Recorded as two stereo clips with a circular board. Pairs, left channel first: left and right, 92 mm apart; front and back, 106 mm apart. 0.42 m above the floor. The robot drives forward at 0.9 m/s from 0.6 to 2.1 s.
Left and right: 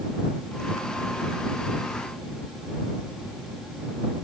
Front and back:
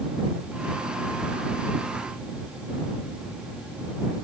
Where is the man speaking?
No man speaking in this recording.